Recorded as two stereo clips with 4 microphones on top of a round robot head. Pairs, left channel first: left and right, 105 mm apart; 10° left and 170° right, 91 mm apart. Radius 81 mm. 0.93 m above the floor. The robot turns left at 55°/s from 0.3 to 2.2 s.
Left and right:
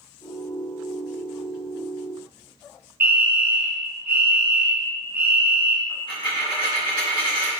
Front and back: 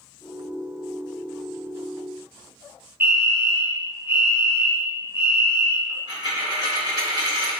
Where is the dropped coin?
45° left, 1.6 m.